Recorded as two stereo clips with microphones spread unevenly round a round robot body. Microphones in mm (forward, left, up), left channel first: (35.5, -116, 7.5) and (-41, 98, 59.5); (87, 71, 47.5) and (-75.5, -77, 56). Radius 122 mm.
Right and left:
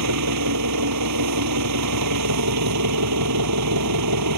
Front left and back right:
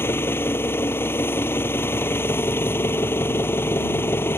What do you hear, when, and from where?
0.0 s an engine running: 125° left